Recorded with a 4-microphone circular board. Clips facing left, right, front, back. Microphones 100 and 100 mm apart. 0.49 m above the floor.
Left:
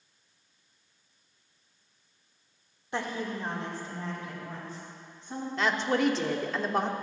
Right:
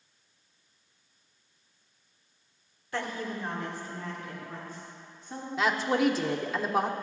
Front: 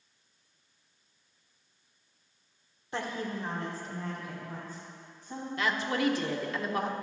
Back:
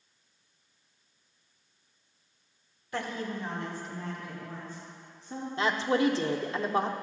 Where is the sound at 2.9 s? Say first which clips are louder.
Left 1 dB, even; 40° left, 1.6 m; by 5.5 s 35° left, 5 m.